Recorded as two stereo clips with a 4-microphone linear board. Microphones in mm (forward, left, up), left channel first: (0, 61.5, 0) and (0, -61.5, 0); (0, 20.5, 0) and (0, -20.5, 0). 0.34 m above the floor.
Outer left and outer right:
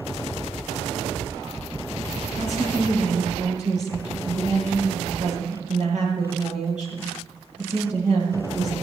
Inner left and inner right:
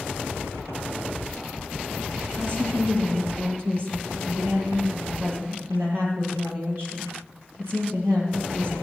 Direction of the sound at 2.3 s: 75° right (ahead or behind).